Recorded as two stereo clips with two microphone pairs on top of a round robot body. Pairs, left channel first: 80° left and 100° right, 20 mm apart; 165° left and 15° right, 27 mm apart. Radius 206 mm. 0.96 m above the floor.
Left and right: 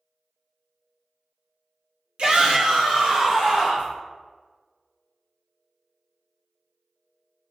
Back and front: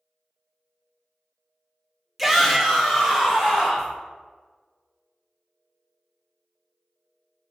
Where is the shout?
90° right, 1.0 m; by 3.9 s 115° right, 2 m.